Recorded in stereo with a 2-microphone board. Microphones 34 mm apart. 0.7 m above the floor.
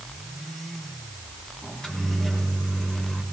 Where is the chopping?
No chopping in this recording.